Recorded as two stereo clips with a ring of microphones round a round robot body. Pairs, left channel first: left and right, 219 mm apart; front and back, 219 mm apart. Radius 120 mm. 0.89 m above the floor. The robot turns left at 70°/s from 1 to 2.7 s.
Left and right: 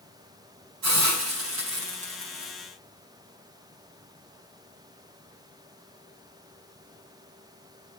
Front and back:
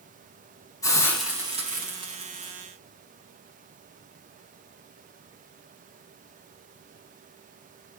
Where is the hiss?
75° right, 5 m; by 2.5 s straight behind, 5 m.